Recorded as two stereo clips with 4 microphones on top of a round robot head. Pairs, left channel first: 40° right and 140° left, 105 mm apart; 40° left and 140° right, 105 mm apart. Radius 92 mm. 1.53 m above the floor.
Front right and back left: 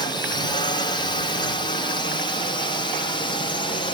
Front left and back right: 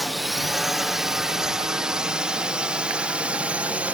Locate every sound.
0.0 s a drone: 50° right; by 4.0 s 65° right